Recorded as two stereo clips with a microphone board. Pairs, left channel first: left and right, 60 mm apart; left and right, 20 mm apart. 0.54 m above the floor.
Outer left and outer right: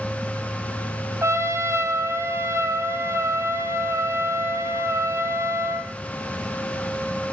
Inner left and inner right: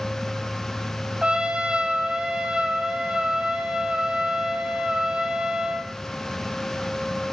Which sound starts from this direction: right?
A trumpet, at 1.2 s.